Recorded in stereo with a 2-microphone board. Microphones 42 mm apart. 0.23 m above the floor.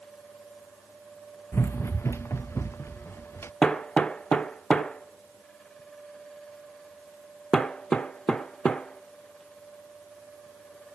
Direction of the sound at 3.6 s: 20° left (ahead or behind).